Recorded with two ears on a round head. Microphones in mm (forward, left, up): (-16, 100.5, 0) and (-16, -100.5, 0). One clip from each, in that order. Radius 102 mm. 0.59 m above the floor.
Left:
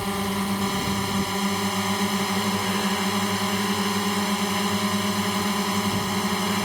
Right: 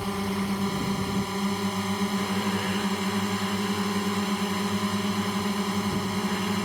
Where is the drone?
30° left (ahead or behind).